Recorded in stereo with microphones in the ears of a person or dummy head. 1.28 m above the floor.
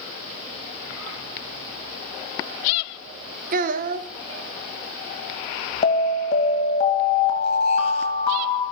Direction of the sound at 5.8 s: 40° left (ahead or behind).